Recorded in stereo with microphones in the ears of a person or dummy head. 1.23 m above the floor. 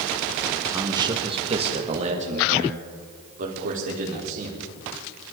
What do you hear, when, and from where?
0.7 s a man speaking: 20° right (ahead or behind), 1.1 m; by 4.6 s 50° right (ahead or behind), 5 m